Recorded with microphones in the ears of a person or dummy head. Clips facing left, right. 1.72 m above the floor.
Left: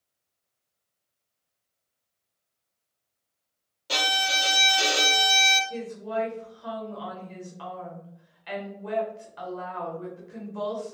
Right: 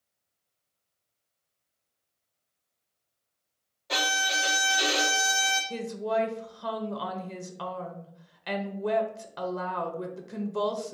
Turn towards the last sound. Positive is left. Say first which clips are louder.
# right 2 dB
turn(degrees=-60)  # may be behind; listen again after turning